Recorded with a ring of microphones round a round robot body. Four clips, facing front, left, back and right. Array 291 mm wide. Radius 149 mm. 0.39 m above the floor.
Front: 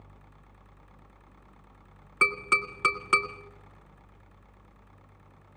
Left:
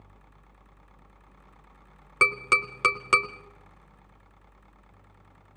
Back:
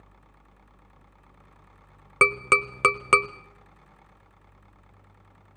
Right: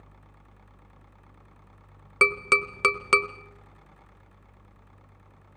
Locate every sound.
2.2 s tapping: 170° right, 1.1 m